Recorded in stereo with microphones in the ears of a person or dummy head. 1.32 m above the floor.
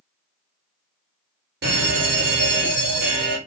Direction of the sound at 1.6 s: 55° right (ahead or behind).